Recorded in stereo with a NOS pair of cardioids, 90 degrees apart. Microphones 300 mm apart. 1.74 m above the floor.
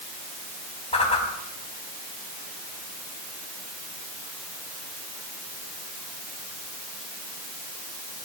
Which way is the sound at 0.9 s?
20° left.